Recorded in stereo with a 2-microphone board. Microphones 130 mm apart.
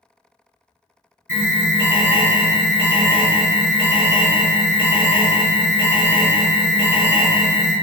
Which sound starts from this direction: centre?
An alarm, at 1.3 s.